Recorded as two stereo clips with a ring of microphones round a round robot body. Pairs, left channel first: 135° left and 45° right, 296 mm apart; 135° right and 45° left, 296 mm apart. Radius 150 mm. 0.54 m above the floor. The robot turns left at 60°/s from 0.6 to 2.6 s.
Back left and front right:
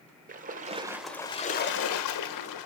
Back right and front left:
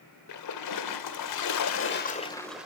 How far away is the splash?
About 1.1 m.